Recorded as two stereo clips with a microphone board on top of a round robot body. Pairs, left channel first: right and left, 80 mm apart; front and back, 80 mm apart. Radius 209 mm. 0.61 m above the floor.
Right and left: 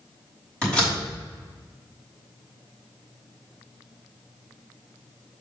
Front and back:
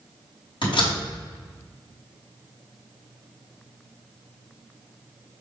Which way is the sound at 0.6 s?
10° right.